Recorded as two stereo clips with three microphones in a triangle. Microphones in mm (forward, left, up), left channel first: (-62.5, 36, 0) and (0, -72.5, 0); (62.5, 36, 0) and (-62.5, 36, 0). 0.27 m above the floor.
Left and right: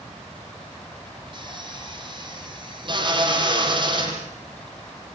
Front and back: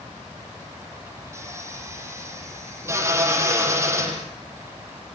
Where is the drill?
110° right, 6.5 m.